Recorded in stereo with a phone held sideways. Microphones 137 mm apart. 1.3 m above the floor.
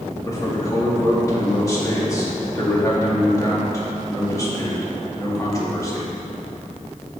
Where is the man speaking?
25° left (ahead or behind), 2.0 m.